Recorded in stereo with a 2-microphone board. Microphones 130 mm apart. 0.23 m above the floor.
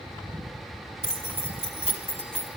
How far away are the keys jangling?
About 1.2 m.